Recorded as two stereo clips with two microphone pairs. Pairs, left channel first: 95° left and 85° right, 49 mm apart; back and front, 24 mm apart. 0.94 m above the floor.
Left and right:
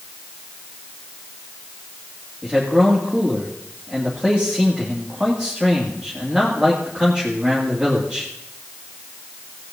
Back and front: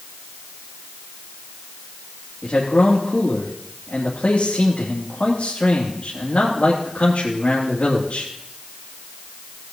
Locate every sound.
2.4 s a man speaking: 160° right, 2.5 m